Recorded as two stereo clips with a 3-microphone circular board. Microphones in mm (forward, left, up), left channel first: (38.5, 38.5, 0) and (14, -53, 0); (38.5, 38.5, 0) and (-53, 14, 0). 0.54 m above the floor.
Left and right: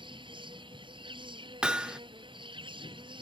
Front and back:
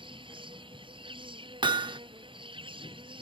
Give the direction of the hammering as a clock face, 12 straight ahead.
6 o'clock.